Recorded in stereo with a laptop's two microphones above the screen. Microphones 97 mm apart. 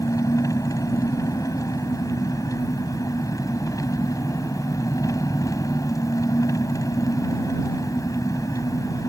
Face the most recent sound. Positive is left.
turn(degrees=35)  # may be behind; listen again after turning